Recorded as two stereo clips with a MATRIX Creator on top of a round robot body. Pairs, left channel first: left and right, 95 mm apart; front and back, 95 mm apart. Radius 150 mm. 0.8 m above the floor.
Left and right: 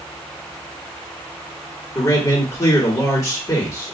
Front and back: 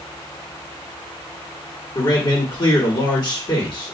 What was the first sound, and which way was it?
A man speaking, 35° left.